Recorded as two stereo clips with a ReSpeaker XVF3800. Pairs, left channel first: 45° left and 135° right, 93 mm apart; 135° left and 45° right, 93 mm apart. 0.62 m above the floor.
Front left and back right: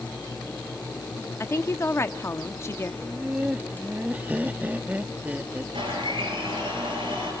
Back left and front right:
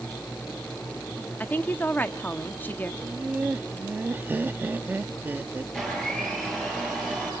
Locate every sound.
1.4 s a woman speaking: 80° left, 0.7 m
3.0 s laughter: 80° right, 0.7 m
5.7 s a blender: 145° right, 9.5 m